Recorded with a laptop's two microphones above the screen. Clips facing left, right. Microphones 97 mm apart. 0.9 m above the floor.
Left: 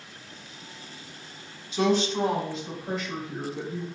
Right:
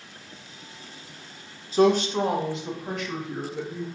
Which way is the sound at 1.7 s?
40° right (ahead or behind).